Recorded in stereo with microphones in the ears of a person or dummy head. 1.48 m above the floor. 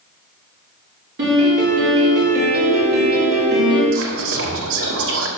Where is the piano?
55° right (ahead or behind), 3.5 m.